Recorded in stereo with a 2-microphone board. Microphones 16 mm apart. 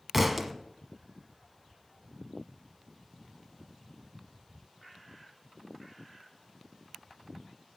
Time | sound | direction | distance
0.1 | a thud | 5° right (ahead or behind) | 0.7 m